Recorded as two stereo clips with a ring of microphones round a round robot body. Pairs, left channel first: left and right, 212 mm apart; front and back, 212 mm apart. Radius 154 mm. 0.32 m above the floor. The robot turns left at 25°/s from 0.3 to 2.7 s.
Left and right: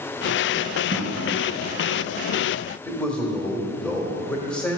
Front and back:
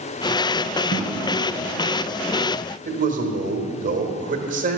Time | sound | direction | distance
0.9 | a drawer | 55° left | 3.5 m
2.9 | a man speaking | 175° left | 1.4 m